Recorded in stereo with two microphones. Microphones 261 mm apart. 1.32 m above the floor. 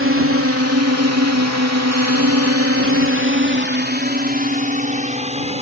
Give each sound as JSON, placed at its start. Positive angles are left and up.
{"t": 0.0, "sound": "a drone", "side_deg": -50}